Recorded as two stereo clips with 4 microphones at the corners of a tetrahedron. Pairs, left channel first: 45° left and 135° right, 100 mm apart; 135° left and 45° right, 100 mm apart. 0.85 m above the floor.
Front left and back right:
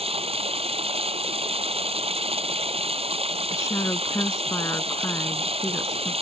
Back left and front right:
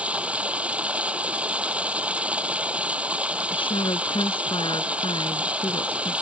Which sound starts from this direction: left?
A woman speaking, at 3.5 s.